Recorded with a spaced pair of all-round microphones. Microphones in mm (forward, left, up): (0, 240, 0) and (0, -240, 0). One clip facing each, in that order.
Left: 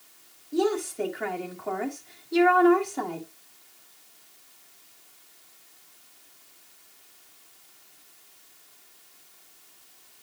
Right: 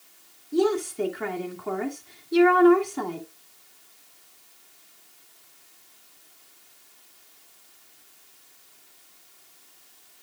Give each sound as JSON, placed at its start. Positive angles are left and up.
{"t": 0.5, "sound": "a woman speaking", "side_deg": -20, "distance_m": 2.5}